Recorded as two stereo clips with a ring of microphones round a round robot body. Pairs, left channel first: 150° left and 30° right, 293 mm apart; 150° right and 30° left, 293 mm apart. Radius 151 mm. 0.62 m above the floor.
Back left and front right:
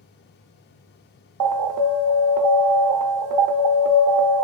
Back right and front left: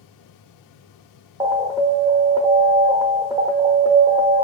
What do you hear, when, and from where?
1.4 s an alarm: 50° right, 0.6 m